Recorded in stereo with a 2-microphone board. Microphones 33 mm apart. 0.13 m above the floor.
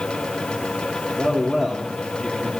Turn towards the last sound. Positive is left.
turn(degrees=-5)  # may be behind; listen again after turning